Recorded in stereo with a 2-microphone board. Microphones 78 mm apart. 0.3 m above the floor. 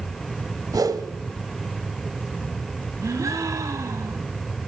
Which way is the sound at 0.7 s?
55° right (ahead or behind).